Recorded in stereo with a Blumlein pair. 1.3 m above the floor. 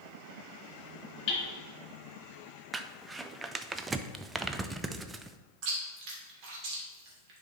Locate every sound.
1.3 s hammering: 40° left, 2.5 m
2.7 s crumpling: 15° right, 0.5 m
5.6 s chewing: 40° right, 2.5 m